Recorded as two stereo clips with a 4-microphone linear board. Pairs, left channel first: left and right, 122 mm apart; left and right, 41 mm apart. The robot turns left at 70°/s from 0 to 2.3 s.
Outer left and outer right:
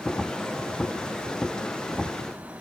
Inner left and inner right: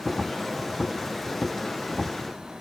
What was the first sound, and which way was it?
Only background noise.